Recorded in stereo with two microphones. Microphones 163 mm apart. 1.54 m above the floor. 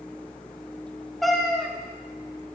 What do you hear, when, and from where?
1.2 s a cat meowing: centre (ahead or behind), 1.0 m